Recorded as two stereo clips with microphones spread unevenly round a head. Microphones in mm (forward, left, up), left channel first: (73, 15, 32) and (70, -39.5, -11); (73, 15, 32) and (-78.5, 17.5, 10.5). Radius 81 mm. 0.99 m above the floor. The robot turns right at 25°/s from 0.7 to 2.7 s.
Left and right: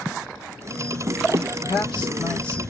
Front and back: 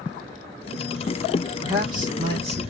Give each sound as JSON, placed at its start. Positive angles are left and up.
{"t": 1.6, "sound": "a man speaking", "azimuth_deg": 115, "distance_m": 1.5}